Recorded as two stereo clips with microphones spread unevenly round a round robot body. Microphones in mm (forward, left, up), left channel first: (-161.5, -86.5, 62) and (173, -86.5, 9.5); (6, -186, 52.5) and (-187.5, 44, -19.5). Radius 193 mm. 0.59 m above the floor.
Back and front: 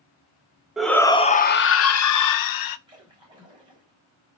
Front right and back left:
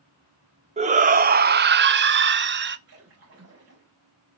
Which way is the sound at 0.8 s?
80° left.